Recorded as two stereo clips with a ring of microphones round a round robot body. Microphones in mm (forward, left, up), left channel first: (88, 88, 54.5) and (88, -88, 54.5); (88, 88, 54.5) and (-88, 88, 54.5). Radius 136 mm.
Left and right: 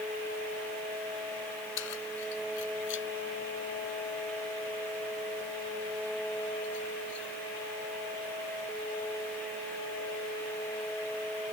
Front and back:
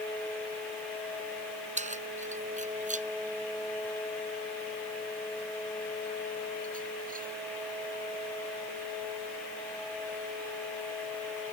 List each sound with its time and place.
1.8 s keys jangling: 130° left; by 7.3 s 135° left